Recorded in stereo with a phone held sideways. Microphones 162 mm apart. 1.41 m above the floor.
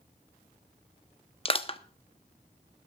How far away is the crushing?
About 0.9 m.